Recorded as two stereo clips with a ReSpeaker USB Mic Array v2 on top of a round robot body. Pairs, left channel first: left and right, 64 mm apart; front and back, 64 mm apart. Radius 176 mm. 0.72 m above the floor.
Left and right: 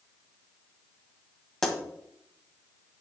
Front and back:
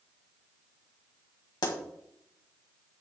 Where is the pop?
5° left, 2 m.